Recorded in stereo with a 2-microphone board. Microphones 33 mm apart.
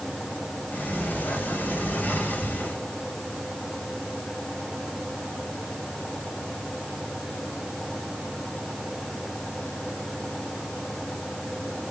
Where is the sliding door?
80° left, 3.5 m.